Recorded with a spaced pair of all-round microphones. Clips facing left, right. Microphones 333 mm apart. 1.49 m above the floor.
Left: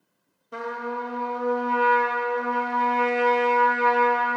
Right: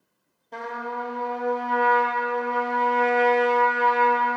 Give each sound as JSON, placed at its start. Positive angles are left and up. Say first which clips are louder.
{"t": 0.5, "sound": "a trumpet", "louder": "left 2 dB", "side_deg": 15, "distance_m": 0.6}